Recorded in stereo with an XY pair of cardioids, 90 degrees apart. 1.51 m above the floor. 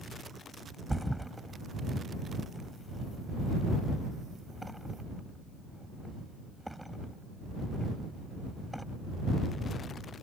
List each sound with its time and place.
0.9 s a thud: 5° right